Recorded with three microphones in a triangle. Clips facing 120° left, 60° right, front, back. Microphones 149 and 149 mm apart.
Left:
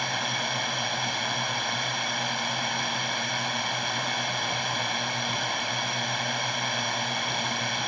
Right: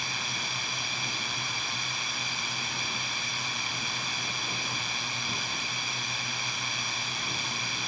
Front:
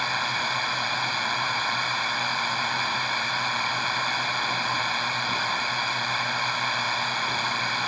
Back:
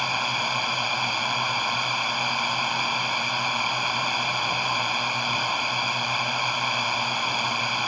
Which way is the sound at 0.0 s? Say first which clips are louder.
Left 8 dB, back 1 dB; 100° left.